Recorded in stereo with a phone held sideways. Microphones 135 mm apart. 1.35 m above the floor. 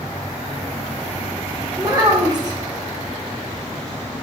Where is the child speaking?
30° right (ahead or behind), 1.1 m.